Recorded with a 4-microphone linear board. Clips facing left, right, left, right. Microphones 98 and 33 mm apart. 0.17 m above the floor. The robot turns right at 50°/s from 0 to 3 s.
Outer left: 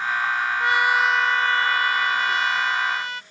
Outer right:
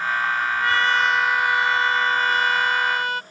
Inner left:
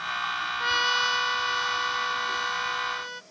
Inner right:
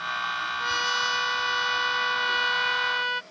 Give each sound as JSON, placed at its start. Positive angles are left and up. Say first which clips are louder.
{"t": 0.6, "sound": "a trumpet", "louder": "outer left 1 dB, inner left 3 dB", "azimuth_deg": 150}